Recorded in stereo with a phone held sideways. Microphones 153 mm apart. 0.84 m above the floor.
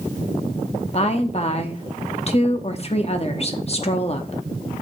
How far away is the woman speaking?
About 1.1 m.